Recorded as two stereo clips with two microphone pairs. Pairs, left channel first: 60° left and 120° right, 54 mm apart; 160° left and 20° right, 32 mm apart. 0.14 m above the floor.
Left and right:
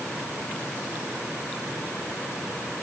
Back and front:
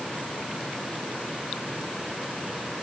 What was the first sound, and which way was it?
Only background noise.